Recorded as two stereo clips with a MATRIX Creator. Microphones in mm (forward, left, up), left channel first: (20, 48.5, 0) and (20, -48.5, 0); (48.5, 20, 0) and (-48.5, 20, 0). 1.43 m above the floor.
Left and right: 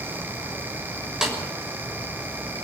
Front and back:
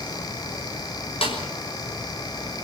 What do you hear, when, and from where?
1.2 s a snare drum: 5° right, 6.5 m